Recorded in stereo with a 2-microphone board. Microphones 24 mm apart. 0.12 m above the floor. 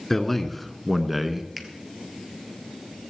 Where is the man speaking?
10° left (ahead or behind), 1.2 m; by 1.5 s 10° right (ahead or behind), 1.2 m.